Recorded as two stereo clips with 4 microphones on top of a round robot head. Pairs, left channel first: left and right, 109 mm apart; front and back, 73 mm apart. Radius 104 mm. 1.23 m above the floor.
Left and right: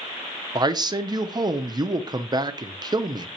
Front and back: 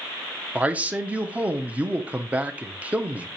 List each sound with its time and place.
0.6 s a man speaking: 120° right, 0.6 m